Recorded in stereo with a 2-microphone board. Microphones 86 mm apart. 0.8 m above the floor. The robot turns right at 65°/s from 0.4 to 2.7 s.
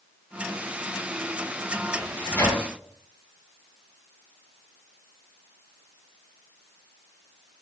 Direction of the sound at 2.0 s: 5° left (ahead or behind).